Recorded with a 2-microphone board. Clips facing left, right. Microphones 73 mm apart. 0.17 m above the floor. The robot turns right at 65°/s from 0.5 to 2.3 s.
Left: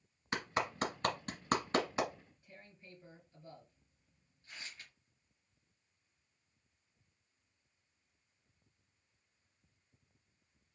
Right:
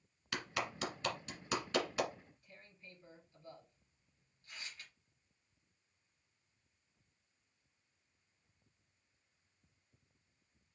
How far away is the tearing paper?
About 3.5 m.